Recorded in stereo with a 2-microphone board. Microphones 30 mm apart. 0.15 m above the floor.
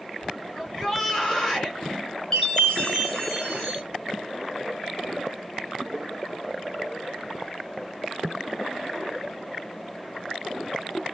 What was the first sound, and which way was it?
A shout, 20° left (ahead or behind).